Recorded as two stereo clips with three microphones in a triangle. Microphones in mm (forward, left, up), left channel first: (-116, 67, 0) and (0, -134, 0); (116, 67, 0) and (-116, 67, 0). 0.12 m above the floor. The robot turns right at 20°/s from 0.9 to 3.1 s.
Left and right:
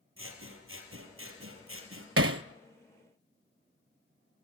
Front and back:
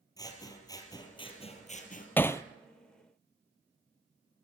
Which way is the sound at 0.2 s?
70° right.